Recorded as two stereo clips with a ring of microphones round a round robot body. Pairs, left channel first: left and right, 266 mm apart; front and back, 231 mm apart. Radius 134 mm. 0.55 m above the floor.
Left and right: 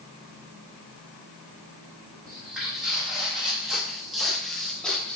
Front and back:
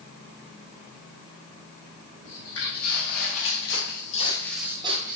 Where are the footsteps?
Straight ahead, 1.4 m; by 5.2 s 175° left, 0.6 m.